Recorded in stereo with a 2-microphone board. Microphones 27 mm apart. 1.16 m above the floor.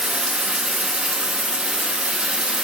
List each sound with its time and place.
0.0 s running water: 40° right (ahead or behind), 0.9 m